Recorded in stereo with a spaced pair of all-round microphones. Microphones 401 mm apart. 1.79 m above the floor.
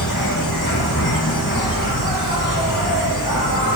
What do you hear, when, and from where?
0.0 s an insect: 50° left (ahead or behind), 2.5 m